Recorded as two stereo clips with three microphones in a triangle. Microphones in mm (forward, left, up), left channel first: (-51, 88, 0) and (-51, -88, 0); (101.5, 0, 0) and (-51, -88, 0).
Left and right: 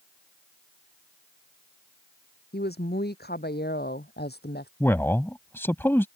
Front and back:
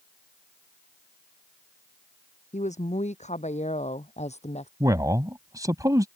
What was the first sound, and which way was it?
A woman speaking, 75° left.